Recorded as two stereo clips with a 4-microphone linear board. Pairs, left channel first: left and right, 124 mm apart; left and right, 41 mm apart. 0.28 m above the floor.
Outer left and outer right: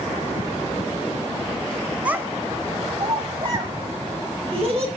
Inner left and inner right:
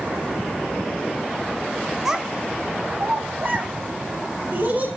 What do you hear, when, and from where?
2.0 s a child speaking: 10° right (ahead or behind), 0.6 m; by 4.9 s 50° right (ahead or behind), 2.0 m